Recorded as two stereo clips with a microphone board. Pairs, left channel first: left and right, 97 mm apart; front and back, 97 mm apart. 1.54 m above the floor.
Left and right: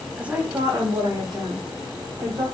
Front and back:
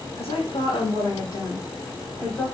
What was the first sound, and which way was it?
A woman speaking, 10° right.